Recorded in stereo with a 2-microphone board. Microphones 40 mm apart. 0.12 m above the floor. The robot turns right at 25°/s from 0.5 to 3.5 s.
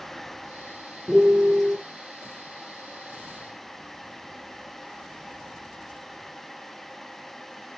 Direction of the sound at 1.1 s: Centre (ahead or behind).